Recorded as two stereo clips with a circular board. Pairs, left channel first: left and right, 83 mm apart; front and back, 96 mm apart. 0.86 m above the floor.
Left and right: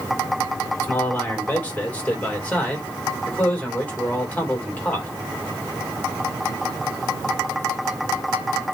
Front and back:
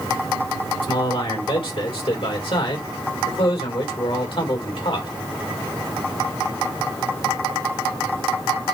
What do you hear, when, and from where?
0.8 s a man speaking: 20° left, 3 m